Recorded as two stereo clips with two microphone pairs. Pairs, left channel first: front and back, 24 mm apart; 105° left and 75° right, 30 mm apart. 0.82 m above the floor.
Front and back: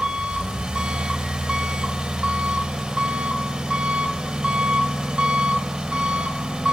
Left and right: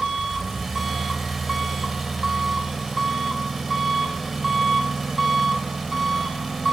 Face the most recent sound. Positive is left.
turn(degrees=-160)